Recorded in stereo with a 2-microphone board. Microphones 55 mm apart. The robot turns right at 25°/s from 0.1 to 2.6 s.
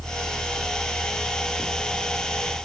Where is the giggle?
No giggle in this recording.